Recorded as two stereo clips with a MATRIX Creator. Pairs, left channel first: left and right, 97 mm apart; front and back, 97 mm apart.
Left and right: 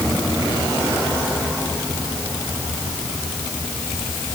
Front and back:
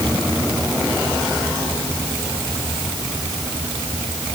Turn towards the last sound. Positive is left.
No sound to turn to.